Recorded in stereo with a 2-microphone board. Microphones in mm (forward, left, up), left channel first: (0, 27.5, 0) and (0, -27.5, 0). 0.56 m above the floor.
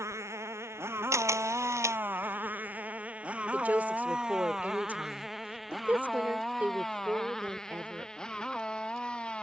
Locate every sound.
0.0 s a motorcycle: 60° right (ahead or behind); by 9.4 s 15° left (ahead or behind)
1.1 s a camera shutter: 65° right (ahead or behind)
3.5 s a woman speaking: 30° right (ahead or behind)